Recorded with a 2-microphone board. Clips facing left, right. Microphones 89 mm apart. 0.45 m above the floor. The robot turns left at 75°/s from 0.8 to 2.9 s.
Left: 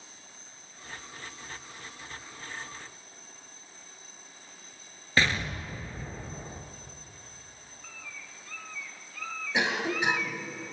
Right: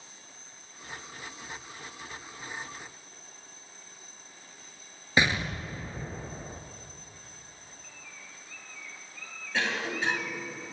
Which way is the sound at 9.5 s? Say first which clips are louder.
Left 2 dB; 15° left (ahead or behind).